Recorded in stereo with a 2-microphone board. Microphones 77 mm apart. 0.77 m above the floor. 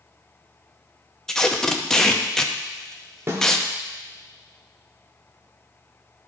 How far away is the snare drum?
About 1.4 m.